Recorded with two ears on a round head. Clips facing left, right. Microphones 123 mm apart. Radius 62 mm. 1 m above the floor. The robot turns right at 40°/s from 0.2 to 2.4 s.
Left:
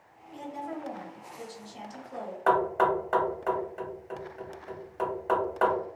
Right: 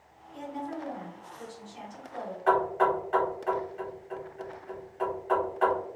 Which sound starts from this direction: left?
Knocking, at 2.5 s.